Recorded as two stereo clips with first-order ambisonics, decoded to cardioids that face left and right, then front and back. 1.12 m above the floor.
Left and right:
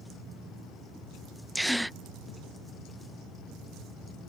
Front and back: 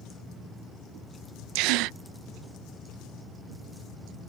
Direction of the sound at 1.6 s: 175° right.